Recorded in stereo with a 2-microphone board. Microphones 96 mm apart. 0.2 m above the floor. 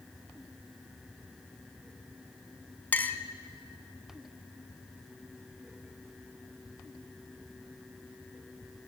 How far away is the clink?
About 1.0 m.